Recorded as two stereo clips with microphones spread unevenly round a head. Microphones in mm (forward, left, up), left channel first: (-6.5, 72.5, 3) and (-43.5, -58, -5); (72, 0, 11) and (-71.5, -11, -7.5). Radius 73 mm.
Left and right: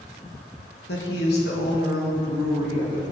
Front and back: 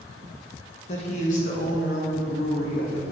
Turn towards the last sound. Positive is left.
turn(degrees=30)